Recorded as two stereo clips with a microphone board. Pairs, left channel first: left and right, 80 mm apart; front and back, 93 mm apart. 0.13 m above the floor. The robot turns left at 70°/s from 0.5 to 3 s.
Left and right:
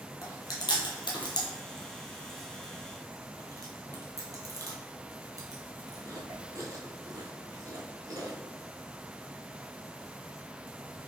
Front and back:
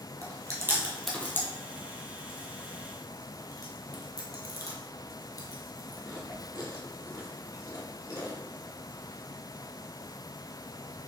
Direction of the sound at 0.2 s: 130° left.